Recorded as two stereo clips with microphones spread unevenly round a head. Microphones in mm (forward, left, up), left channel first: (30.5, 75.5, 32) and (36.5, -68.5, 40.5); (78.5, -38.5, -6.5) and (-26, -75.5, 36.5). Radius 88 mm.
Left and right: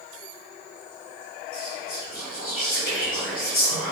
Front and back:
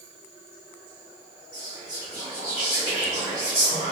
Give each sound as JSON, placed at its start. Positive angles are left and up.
{"t": 1.5, "sound": "whispering", "azimuth_deg": 130, "distance_m": 0.9}